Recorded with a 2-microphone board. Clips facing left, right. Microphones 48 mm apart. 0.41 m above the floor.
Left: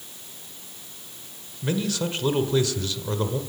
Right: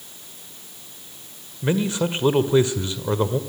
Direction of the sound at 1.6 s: 25° right (ahead or behind).